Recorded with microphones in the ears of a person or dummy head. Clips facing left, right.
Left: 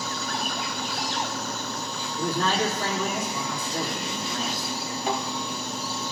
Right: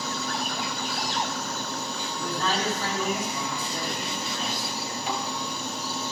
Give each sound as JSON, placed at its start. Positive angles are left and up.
{"t": 2.2, "sound": "a man speaking", "side_deg": 50, "distance_m": 3.0}
{"t": 5.1, "sound": "a thud", "side_deg": 45, "distance_m": 2.0}